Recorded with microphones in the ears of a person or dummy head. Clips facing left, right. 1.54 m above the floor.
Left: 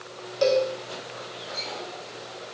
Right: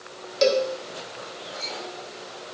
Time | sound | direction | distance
0.4 | a cowbell | 30° right (ahead or behind) | 1.5 m